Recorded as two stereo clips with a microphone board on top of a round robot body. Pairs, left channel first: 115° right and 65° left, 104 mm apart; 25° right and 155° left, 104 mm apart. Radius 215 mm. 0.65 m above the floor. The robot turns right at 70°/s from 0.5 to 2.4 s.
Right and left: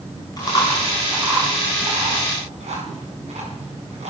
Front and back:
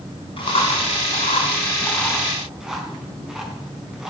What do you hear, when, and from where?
0.4 s chewing: 60° right, 5.5 m; by 4.1 s 75° left, 5.5 m